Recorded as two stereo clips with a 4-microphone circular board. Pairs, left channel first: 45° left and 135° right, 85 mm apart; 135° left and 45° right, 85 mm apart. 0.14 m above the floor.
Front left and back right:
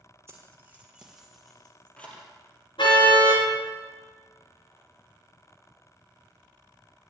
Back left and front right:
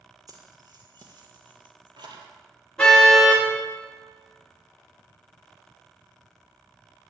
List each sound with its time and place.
0.3 s keys jangling: 80° right, 3 m; by 2.3 s 25° right, 3 m
2.8 s a car horn: 55° left, 7.5 m